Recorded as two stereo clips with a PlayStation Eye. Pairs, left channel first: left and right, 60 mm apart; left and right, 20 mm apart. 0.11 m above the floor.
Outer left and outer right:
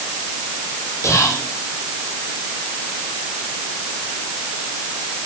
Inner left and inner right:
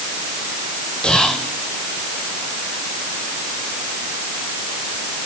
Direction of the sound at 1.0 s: 60° left (ahead or behind).